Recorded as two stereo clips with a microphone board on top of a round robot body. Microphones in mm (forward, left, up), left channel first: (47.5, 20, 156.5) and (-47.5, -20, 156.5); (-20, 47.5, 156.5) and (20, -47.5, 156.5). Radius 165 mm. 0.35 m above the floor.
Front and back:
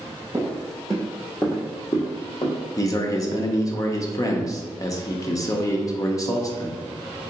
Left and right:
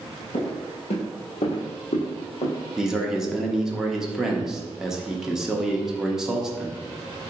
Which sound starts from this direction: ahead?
A man speaking, at 2.8 s.